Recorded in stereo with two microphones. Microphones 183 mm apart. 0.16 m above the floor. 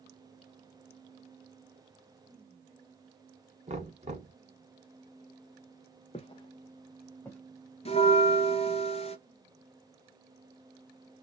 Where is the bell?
35° left (ahead or behind), 0.8 m.